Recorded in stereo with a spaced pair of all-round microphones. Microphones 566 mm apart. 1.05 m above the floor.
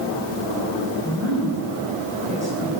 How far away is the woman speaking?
About 5.5 m.